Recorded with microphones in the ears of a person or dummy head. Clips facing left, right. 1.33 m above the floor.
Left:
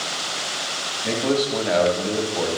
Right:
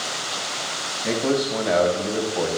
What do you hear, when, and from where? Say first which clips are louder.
1.0 s a man speaking: even; 5° right (ahead or behind), 1.9 m